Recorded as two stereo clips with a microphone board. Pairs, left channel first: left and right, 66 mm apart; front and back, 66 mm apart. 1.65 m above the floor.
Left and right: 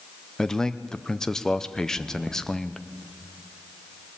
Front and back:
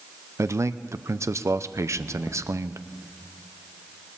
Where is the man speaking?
170° left, 0.5 m.